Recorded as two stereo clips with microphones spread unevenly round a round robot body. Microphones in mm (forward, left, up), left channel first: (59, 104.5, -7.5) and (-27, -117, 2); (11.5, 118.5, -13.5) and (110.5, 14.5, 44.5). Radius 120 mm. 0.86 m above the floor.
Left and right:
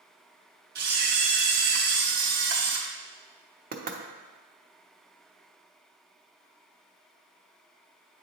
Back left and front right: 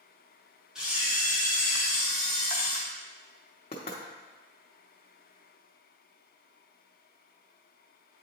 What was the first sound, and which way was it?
A camera shutter, 155° right.